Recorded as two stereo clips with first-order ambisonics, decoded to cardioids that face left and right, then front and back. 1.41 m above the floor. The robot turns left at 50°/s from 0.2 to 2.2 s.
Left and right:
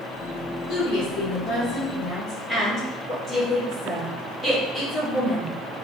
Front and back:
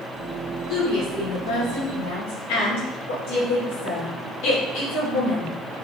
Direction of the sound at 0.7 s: 75° left.